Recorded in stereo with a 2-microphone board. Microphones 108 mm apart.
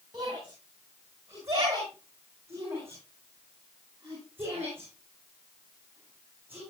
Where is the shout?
35° right (ahead or behind), 6.5 m; by 6.6 s 15° right (ahead or behind), 14.5 m.